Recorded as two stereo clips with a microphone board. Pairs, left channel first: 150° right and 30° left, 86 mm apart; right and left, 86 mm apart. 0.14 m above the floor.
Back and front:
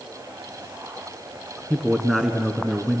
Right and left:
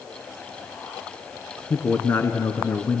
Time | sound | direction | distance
1.7 | a man speaking | 60° right | 1.2 m